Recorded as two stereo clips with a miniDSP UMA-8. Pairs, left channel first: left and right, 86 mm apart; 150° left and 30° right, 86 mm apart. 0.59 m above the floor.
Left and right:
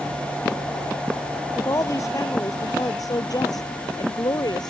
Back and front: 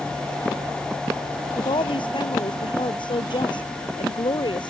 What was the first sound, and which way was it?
A woman speaking, 140° left.